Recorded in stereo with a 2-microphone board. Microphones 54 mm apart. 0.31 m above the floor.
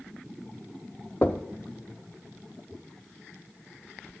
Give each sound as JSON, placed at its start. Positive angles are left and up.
{"t": 1.2, "sound": "knocking", "side_deg": 35, "distance_m": 0.6}